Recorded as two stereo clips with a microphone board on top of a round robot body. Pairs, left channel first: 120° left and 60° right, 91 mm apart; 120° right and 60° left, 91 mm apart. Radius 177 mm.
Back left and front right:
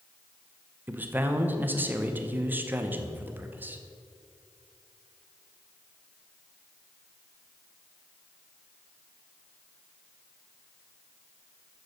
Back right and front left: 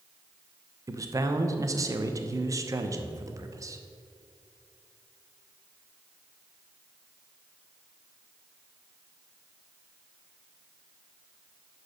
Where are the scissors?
No scissors in this recording.